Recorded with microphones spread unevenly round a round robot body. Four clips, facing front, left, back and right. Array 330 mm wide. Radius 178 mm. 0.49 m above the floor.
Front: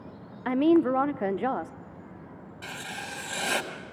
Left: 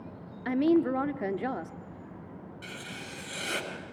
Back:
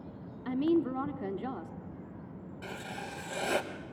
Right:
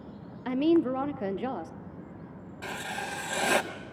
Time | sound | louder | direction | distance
0.5 | a woman speaking | even, front 7 dB | 15° left | 0.8 m
2.6 | writing | right 11 dB, front 3 dB | 75° right | 1.2 m